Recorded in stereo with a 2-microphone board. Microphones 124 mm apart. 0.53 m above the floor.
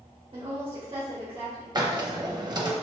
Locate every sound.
0.3 s a woman speaking: 45° right (ahead or behind), 1.4 m
1.8 s a hiss: 35° right (ahead or behind), 0.5 m